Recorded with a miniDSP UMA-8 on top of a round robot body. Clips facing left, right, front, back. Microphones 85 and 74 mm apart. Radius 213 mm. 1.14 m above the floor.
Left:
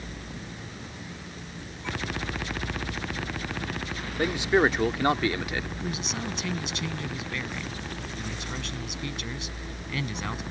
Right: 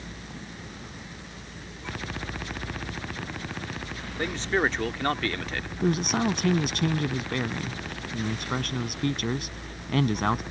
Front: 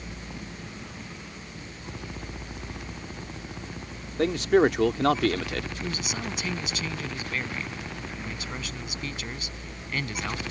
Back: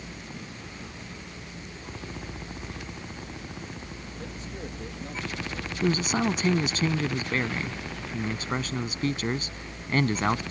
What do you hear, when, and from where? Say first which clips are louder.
4.2 s a man speaking: left 4 dB, front 21 dB; 10° left
5.8 s a man speaking: right 8 dB, back 8 dB; 130° right